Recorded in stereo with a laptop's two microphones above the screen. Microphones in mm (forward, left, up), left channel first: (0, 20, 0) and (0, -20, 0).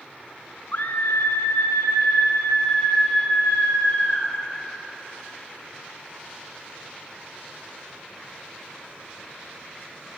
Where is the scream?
45° left (ahead or behind), 0.5 m; by 4.3 s 75° left (ahead or behind), 2.5 m.